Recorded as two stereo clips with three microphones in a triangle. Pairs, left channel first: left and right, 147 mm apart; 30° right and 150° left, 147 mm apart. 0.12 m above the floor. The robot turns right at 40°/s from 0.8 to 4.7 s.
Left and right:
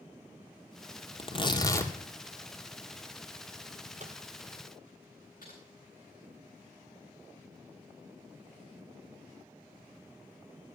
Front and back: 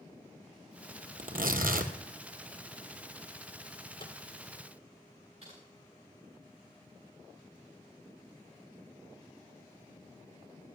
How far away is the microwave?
About 1.5 m.